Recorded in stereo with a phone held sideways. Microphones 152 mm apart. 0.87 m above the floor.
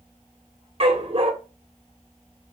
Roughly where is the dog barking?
Right.